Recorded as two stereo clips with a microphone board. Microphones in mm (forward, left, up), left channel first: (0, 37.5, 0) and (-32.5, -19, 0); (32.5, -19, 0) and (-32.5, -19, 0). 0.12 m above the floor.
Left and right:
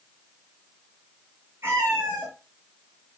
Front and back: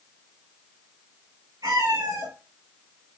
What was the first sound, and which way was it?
A cat meowing, 170° right.